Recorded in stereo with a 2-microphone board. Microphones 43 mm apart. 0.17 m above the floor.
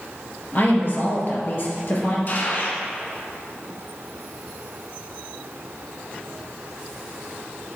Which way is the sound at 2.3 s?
45° left (ahead or behind).